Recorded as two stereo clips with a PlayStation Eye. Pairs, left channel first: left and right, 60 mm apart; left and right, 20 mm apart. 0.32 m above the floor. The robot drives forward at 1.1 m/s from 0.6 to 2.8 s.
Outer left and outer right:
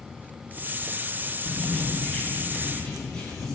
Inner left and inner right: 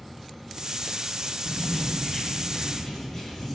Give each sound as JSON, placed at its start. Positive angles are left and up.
{"t": 1.4, "sound": "writing", "side_deg": 15, "distance_m": 2.5}